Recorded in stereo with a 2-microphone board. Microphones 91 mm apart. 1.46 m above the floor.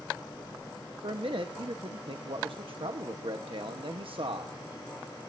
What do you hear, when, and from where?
1.0 s a man speaking: 80° right, 1.2 m